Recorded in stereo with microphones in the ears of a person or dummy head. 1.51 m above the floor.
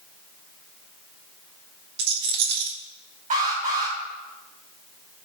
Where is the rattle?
60° right (ahead or behind), 2 m.